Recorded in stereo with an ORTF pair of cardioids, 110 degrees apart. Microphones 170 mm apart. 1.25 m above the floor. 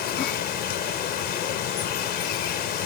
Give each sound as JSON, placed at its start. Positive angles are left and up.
{"t": 0.0, "sound": "running water", "azimuth_deg": 70}